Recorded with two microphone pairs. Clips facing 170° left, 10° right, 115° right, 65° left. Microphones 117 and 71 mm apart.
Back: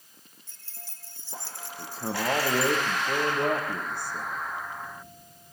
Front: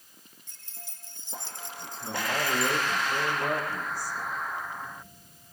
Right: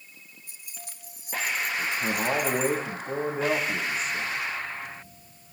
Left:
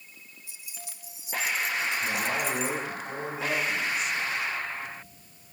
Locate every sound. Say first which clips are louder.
0.5 s keys jangling: even, even; 80° right, 2.5 m; by 2.8 s 75° right, 4 m
1.8 s a man speaking: back 4 dB, right 1 dB; 160° right, 7 m